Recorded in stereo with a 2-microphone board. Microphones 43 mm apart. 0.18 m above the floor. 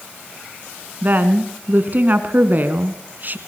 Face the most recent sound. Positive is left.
turn(degrees=-45)  # may be behind; listen again after turning